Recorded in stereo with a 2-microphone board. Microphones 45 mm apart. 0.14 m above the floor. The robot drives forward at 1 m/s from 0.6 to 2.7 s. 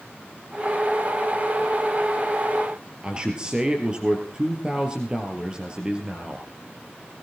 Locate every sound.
3.0 s a man speaking: 25° right (ahead or behind), 2.5 m